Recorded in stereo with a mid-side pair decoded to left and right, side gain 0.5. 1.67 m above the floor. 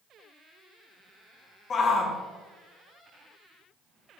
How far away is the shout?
About 1.7 m.